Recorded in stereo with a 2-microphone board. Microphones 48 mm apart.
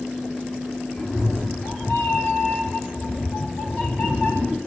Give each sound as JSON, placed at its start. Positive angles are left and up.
{"t": 1.0, "sound": "a cat meowing", "side_deg": 20, "distance_m": 2.0}